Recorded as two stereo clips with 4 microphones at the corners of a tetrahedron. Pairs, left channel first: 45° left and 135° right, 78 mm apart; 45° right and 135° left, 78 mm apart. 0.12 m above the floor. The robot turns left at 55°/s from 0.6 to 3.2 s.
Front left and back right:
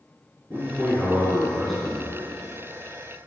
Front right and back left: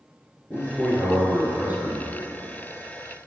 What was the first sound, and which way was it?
A man speaking, 170° right.